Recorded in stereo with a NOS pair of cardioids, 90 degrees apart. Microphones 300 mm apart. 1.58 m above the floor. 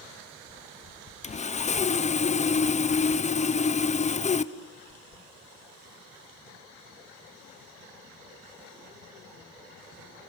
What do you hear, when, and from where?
1.2 s sawing: 25° left, 1.0 m